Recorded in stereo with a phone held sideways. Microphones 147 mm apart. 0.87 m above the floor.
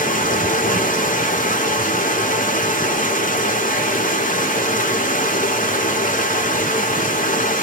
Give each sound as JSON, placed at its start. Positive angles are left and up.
{"t": 0.0, "sound": "running water", "side_deg": 65, "distance_m": 0.9}